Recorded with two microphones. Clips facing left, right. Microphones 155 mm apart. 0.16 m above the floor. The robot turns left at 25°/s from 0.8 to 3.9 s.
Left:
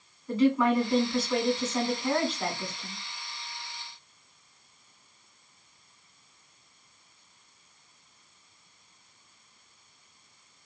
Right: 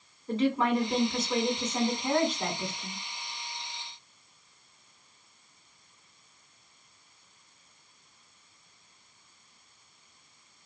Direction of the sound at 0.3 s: 20° right (ahead or behind).